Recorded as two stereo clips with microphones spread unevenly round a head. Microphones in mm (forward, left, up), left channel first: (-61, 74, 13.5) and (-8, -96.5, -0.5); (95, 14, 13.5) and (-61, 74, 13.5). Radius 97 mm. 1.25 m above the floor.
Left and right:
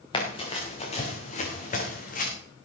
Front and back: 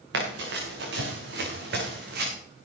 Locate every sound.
0.1 s running footsteps: 165° left, 5 m; by 2.3 s 145° left, 4.5 m